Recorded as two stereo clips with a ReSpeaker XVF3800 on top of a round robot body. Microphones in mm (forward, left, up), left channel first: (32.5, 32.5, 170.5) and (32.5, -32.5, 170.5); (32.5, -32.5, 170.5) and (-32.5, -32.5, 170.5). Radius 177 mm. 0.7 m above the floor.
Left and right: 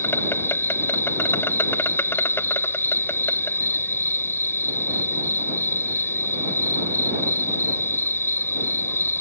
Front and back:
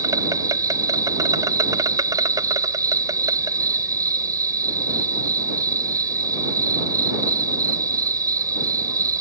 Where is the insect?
150° left.